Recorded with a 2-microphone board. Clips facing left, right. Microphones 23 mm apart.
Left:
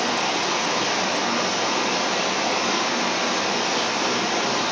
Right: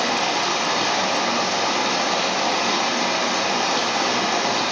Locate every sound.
0.0 s running water: 55° right (ahead or behind), 1.0 m